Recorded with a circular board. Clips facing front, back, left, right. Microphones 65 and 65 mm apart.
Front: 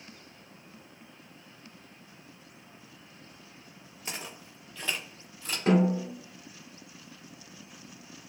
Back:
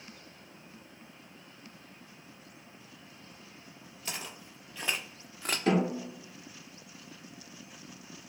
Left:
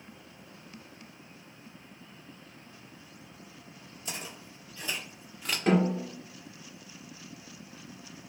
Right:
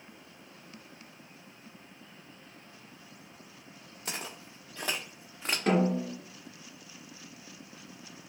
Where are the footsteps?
70° right, 0.9 m; by 5.6 s 155° right, 0.6 m.